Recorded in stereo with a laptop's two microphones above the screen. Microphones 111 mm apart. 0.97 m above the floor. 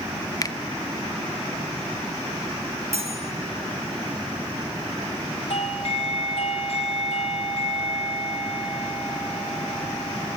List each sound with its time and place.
0.4 s a finger snap: 30° left (ahead or behind), 0.7 m
2.9 s cutlery clinking: 65° right (ahead or behind), 5.5 m
5.5 s a doorbell: 60° left (ahead or behind), 2.0 m